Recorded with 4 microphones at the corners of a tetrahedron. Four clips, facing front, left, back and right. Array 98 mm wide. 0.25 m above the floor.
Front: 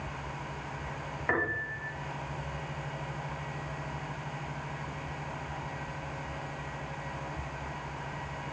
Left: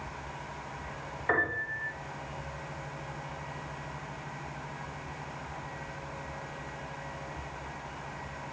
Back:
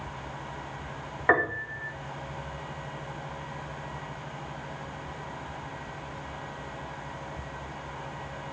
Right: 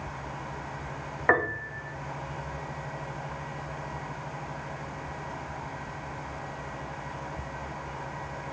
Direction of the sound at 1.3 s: 125° right.